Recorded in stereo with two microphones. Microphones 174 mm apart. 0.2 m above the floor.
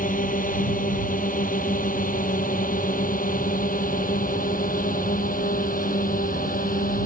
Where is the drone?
50° left (ahead or behind); by 7.1 s 55° left (ahead or behind).